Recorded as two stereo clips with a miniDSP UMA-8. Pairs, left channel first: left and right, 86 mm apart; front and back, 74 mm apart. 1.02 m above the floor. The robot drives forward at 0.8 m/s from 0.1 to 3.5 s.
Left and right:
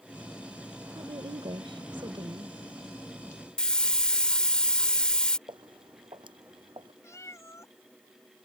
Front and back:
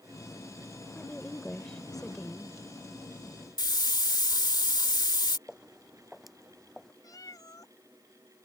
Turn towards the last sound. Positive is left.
turn(degrees=35)